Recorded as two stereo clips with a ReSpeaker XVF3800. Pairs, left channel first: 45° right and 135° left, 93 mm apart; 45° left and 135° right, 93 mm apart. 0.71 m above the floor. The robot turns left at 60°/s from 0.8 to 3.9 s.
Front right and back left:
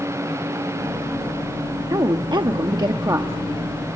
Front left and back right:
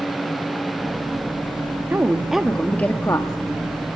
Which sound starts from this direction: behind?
A woman speaking, at 1.9 s.